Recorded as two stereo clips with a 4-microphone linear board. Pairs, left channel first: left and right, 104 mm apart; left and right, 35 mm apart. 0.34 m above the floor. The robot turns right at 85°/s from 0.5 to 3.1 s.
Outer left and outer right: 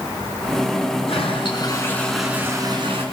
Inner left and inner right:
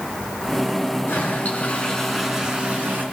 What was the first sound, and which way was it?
A toilet flushing, 85° left.